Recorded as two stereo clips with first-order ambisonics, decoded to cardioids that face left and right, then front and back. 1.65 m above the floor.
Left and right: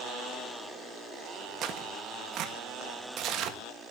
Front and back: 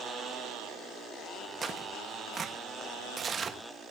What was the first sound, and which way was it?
Tearing paper, 120° right.